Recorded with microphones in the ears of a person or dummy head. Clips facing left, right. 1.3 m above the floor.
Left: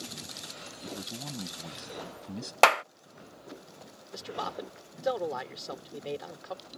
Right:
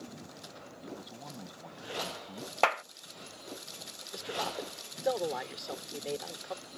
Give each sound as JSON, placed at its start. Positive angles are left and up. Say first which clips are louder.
{"t": 0.8, "sound": "a man speaking", "louder": "left 5 dB", "side_deg": 40}
{"t": 2.6, "sound": "a clap", "louder": "left 6 dB", "side_deg": 55}
{"t": 4.1, "sound": "a man speaking", "louder": "even", "side_deg": 5}